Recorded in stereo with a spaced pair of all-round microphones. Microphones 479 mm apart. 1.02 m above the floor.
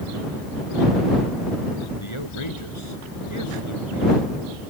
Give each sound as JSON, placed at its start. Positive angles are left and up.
{"t": 2.0, "sound": "a man speaking", "side_deg": 85}